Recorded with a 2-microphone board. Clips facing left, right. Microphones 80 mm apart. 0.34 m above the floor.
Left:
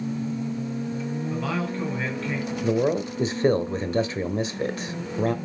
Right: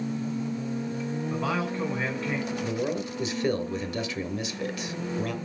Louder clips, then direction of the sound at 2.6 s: Left 6 dB; 35° left (ahead or behind).